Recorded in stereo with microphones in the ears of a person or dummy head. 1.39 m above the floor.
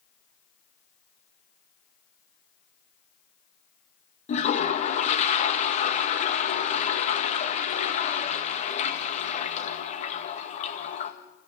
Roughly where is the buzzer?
No buzzer in this recording.